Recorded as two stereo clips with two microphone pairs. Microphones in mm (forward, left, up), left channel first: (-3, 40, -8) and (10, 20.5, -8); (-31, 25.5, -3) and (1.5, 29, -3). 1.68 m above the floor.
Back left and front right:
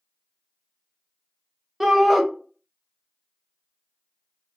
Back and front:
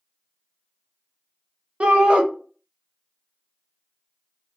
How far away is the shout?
About 0.7 m.